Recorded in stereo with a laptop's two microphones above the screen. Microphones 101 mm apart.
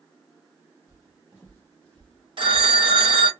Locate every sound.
0.9 s footsteps: 30° left (ahead or behind), 1.4 m; by 3.2 s 30° right (ahead or behind), 1.1 m
2.4 s a phone ringing: 60° right (ahead or behind), 0.6 m